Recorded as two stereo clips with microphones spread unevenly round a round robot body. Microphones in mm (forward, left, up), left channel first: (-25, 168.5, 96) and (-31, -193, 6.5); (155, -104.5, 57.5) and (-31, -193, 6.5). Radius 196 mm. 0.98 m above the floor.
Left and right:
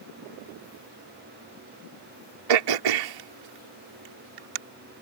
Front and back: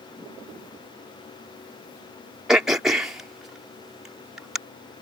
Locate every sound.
2.5 s throat clearing: 70° right